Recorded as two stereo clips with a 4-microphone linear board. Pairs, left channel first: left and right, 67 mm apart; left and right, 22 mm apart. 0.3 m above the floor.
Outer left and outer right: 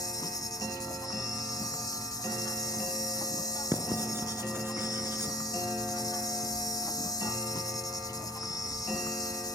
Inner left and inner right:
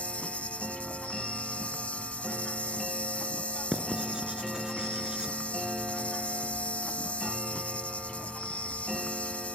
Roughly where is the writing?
Right.